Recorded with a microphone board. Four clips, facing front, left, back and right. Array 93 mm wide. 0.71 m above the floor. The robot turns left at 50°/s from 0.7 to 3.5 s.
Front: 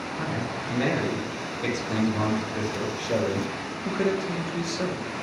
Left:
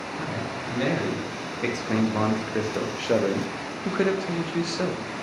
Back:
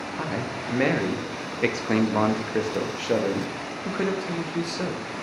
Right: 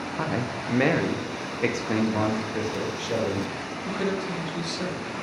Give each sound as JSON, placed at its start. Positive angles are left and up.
{"t": 0.2, "sound": "a man speaking", "azimuth_deg": -115, "distance_m": 0.6}